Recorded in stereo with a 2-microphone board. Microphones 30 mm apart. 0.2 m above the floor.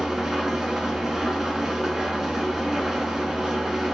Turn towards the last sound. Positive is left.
turn(degrees=-10)  # may be behind; listen again after turning